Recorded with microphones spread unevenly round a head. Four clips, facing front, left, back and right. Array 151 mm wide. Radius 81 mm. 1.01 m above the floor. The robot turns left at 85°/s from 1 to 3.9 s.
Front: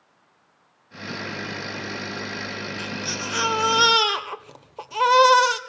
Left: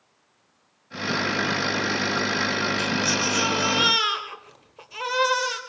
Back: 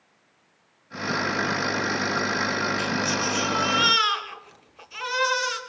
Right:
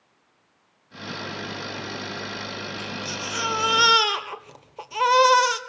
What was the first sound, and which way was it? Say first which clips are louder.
A baby crying: left 8 dB, back 6 dB; 75° left.